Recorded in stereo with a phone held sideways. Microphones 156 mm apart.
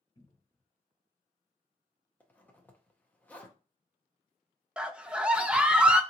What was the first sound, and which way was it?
A cupboard door, 30° left (ahead or behind).